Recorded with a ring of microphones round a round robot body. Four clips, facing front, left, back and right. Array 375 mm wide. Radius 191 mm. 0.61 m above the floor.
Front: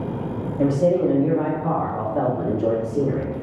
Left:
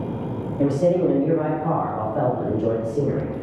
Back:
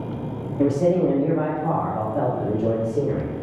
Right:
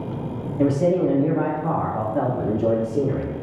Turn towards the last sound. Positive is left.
turn(degrees=-55)